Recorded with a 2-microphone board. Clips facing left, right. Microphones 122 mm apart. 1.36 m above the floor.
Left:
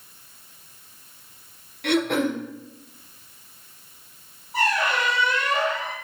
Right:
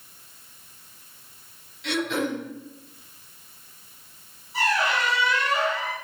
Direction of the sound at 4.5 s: 55° left (ahead or behind).